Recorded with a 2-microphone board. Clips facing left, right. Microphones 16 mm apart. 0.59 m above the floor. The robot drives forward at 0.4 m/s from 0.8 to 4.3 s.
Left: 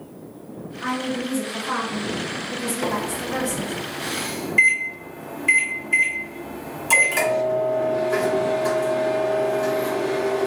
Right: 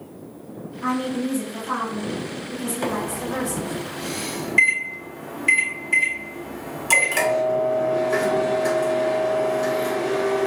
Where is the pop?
I don't hear a pop.